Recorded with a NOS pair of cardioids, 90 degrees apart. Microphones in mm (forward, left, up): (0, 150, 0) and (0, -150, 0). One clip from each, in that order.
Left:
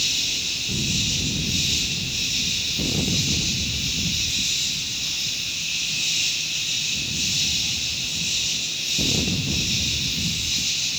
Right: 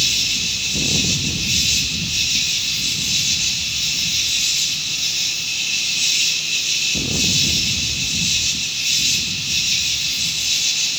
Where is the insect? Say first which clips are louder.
Right 5 dB; 65° right, 2 m.